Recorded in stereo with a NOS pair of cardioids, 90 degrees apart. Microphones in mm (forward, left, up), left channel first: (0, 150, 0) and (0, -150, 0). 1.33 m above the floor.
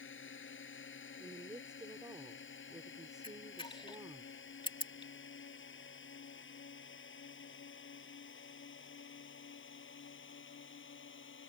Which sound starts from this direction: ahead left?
A drone, at 0.0 s.